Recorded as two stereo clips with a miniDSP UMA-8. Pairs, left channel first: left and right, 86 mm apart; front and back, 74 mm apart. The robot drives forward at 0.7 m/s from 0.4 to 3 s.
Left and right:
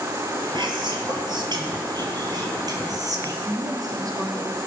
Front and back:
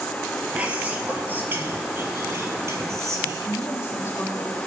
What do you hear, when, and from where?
0.6 s whispering: 110° right, 3.5 m; by 3.4 s 135° right, 4.5 m
3.5 s a woman speaking: 55° right, 3 m